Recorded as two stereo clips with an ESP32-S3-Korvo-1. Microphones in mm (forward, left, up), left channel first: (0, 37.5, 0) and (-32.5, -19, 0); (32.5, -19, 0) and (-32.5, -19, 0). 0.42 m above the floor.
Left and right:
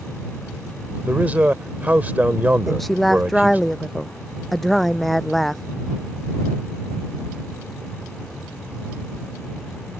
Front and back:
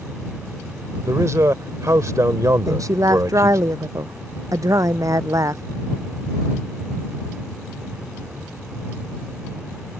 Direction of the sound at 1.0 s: Straight behind.